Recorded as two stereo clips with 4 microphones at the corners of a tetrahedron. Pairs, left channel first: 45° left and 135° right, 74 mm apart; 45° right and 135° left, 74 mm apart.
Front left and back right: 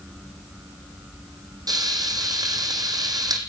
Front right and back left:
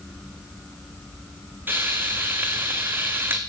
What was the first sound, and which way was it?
Frying, 160° right.